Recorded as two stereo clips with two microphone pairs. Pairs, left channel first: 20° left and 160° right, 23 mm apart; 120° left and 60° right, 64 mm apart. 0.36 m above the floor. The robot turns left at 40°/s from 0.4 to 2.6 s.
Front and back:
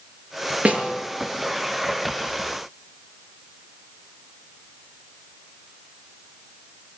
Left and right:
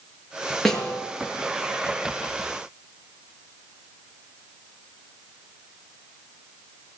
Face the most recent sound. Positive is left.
turn(degrees=130)